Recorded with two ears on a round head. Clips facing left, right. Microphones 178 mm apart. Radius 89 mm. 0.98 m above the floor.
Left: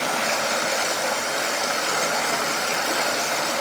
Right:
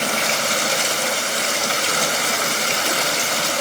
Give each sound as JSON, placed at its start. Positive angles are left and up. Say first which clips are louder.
{"t": 0.0, "sound": "running water", "louder": "right 1 dB", "side_deg": -45, "distance_m": 2.0}